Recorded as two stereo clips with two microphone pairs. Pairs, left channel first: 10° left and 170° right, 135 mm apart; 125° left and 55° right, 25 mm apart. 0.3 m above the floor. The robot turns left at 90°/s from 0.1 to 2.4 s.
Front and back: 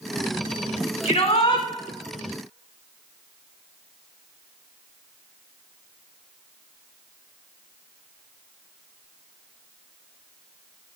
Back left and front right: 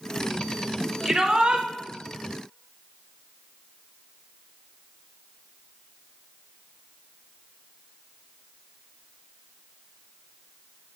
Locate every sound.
1.1 s a shout: 30° left, 1.1 m; by 1.7 s 20° right, 1.1 m